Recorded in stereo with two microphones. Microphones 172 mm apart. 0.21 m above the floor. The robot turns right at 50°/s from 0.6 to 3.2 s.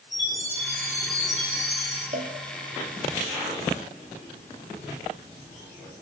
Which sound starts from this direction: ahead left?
A chime, at 0.1 s.